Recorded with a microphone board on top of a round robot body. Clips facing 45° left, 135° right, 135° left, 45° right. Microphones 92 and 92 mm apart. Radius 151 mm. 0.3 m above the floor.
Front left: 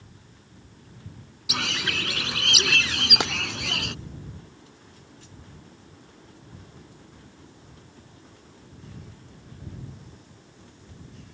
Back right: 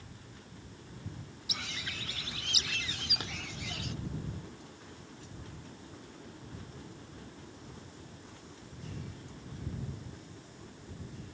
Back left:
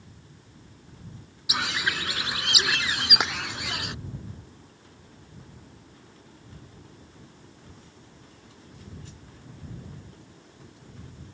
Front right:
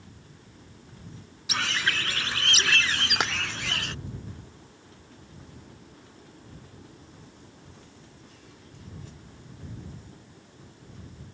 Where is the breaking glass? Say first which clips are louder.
Front left 16 dB, even; 45° left.